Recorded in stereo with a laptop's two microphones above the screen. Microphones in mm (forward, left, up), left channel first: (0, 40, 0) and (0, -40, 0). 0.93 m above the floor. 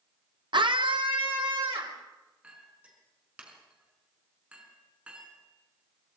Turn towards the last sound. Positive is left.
turn(degrees=-15)  # may be behind; listen again after turning